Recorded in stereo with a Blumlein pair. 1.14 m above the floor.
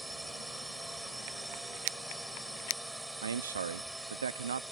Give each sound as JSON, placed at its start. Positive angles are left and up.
{"t": 0.0, "sound": "a drone", "azimuth_deg": -5}
{"t": 3.2, "sound": "a man speaking", "azimuth_deg": -70}